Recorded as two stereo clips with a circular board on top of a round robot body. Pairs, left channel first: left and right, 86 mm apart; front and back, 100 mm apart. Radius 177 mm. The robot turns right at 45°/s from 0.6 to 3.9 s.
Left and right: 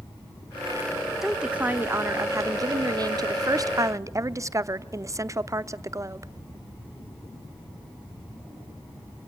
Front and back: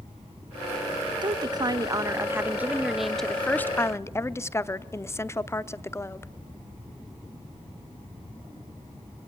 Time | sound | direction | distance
1.2 | a woman speaking | 175° right | 1.0 m